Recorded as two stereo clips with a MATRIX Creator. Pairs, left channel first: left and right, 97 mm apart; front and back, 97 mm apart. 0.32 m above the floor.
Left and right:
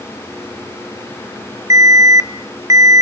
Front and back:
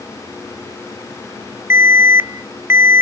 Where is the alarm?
125° right, 0.8 m.